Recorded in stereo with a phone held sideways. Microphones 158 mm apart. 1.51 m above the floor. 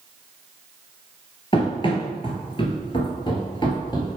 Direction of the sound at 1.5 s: 35° left (ahead or behind).